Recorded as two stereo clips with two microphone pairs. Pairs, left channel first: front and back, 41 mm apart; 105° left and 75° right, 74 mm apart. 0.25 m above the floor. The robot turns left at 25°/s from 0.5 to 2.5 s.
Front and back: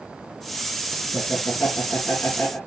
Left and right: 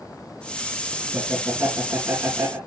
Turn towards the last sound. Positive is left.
turn(degrees=-25)